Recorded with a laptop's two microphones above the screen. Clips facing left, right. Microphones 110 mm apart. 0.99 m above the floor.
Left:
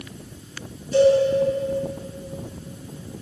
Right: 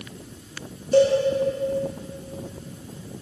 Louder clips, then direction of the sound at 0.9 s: Left 1 dB; 50° right (ahead or behind).